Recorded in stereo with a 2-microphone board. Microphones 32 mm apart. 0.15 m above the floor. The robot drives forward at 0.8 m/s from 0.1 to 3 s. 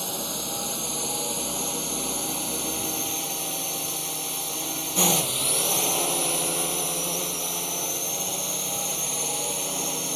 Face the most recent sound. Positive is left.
turn(degrees=0)  # may be behind; listen again after turning